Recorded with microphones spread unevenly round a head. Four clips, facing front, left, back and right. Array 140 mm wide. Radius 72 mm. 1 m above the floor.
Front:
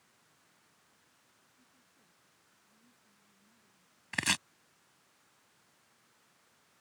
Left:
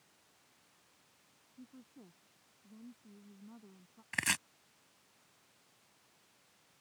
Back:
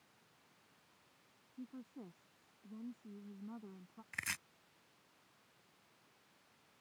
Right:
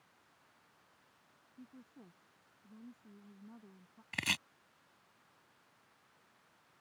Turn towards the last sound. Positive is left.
turn(degrees=0)